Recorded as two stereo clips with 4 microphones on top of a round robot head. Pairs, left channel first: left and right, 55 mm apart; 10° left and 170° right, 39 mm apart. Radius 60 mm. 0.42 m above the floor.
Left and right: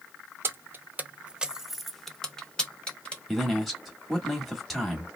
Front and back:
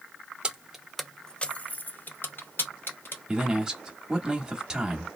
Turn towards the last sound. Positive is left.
turn(degrees=180)